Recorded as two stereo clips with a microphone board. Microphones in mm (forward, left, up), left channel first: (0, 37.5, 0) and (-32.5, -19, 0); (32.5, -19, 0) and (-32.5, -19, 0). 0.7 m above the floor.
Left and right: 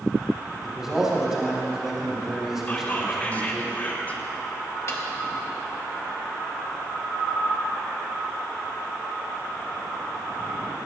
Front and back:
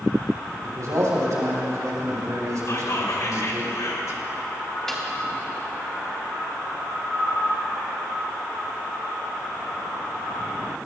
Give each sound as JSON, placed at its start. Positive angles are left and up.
{"t": 0.6, "sound": "a man speaking", "azimuth_deg": 155, "distance_m": 3.5}
{"t": 2.7, "sound": "whispering", "azimuth_deg": 0, "distance_m": 2.5}
{"t": 4.9, "sound": "a snare drum", "azimuth_deg": 80, "distance_m": 1.8}